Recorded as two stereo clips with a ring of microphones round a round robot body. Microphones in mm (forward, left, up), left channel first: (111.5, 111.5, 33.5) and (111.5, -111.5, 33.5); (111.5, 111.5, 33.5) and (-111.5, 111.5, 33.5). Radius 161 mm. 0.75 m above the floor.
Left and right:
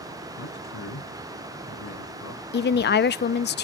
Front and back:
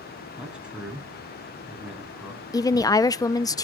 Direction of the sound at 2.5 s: 70° left.